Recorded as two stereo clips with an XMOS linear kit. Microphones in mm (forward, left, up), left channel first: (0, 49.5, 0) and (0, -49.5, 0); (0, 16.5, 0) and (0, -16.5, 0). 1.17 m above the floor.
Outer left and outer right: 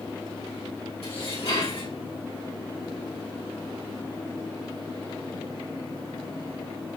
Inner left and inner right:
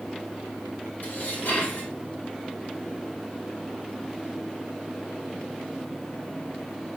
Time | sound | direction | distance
1.0 | dishes clattering | 80° left | 3 m